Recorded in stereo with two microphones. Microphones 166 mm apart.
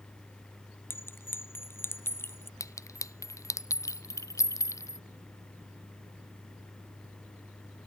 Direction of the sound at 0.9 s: 15° left (ahead or behind).